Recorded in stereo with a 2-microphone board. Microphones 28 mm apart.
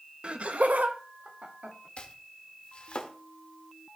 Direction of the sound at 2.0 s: 50° left (ahead or behind).